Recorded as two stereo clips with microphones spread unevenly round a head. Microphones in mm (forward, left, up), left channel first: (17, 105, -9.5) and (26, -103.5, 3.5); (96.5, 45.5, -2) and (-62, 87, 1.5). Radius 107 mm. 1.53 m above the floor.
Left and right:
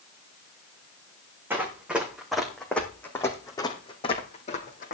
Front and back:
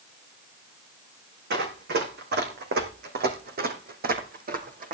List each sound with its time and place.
1.5 s running footsteps: 165° right, 4 m; by 4.9 s 140° left, 3 m